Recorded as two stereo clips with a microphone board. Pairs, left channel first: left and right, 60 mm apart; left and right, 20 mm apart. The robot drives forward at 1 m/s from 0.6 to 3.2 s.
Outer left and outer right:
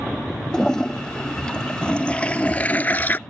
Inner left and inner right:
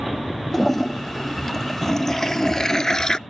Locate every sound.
0.5 s a toilet flushing: 10° left (ahead or behind); by 3.2 s 30° left (ahead or behind)